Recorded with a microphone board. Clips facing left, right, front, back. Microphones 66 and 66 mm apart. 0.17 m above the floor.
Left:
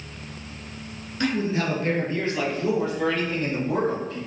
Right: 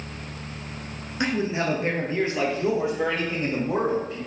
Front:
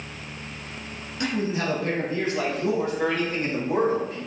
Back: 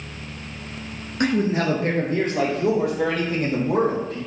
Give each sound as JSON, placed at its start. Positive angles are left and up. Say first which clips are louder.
{"t": 1.2, "sound": "a man speaking", "louder": "even, back 5 dB", "azimuth_deg": -155, "distance_m": 1.8}